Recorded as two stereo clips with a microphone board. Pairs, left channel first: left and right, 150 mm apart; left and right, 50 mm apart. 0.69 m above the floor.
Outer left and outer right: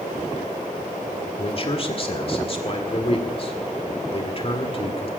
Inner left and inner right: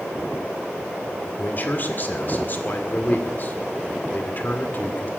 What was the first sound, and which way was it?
A man speaking, 40° left (ahead or behind).